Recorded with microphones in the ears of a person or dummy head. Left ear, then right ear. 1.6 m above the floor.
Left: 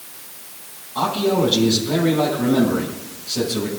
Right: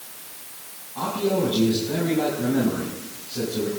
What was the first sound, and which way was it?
A man speaking, 50° left (ahead or behind).